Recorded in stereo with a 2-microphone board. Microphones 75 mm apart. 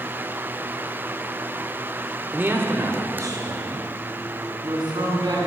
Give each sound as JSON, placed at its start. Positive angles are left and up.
{"t": 2.3, "sound": "a man speaking", "side_deg": -20, "distance_m": 1.1}